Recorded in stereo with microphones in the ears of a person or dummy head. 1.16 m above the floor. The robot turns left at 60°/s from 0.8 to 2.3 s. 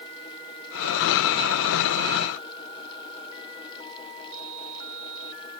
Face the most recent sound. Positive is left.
No sound to turn to.